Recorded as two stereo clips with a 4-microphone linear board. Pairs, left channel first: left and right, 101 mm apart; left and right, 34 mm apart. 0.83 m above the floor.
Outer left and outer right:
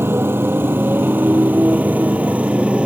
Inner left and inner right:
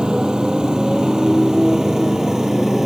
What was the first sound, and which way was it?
A motorcycle, 25° right (ahead or behind).